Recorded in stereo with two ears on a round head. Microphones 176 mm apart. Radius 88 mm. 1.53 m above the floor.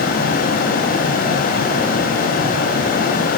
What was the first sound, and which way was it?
Only background noise.